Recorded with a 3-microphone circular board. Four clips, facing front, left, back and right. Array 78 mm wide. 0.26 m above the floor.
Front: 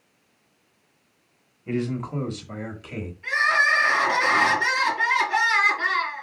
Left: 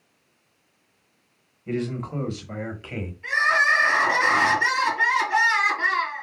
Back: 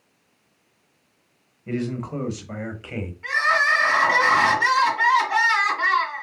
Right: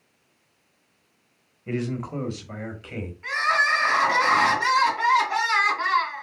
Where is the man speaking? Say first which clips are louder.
Left 1 dB, even; 85° right, 1.1 m; by 3.1 s 140° left, 1.3 m.